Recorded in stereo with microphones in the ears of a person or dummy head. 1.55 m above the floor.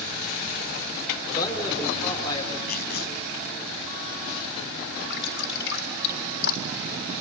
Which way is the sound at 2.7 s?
50° left (ahead or behind).